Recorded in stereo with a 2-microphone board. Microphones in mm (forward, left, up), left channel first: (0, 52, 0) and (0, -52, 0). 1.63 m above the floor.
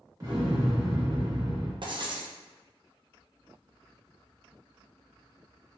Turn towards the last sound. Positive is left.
turn(degrees=-50)  # may be behind; listen again after turning